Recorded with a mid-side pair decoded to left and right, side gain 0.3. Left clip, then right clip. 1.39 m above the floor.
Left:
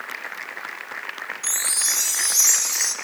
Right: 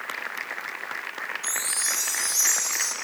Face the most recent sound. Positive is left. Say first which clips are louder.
# left 5 dB
turn(degrees=55)